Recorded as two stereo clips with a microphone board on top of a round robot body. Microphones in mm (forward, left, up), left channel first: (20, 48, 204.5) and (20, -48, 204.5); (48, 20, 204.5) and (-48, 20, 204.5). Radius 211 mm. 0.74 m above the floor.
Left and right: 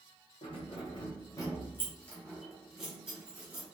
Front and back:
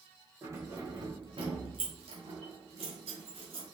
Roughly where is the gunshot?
No gunshot in this recording.